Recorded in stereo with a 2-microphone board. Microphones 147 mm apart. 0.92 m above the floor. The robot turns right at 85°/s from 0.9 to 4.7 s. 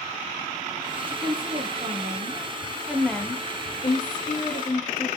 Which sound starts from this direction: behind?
A woman speaking, at 1.1 s.